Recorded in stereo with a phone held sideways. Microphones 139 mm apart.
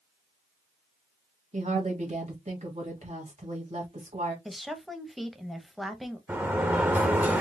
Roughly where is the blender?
No blender in this recording.